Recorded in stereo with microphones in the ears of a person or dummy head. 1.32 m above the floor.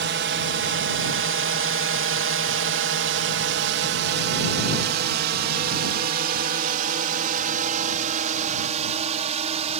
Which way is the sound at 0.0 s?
55° right (ahead or behind).